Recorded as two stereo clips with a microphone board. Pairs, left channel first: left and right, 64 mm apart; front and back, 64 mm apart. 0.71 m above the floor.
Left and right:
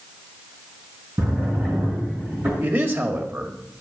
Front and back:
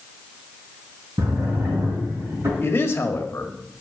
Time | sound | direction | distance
1.2 | a drawer | 140° right | 5 m
2.6 | a man speaking | 45° right | 1.7 m